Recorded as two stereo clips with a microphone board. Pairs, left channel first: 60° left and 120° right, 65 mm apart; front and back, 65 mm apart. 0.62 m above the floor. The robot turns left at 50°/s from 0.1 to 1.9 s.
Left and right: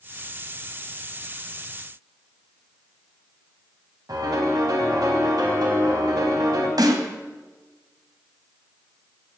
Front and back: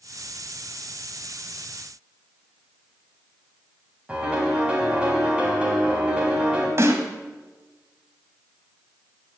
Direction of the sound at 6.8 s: 130° right.